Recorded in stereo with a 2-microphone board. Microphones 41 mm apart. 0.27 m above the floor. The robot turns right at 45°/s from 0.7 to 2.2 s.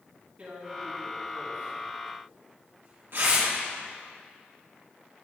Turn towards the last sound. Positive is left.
turn(degrees=-65)  # may be behind; listen again after turning